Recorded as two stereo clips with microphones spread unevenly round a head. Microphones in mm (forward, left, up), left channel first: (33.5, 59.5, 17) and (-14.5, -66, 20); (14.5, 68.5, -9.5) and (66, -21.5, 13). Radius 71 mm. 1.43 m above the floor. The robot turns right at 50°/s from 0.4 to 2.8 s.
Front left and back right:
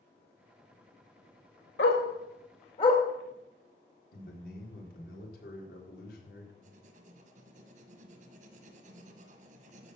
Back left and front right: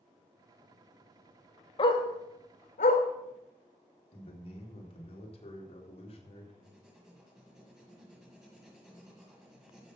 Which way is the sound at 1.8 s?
75° left.